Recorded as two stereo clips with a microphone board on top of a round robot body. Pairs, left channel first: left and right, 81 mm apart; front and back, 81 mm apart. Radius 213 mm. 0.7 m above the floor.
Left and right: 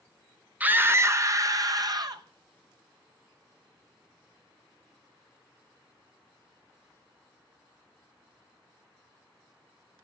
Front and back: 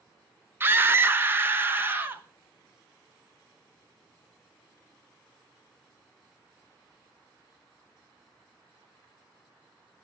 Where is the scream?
145° right, 0.9 m; by 2.2 s 120° right, 1.6 m.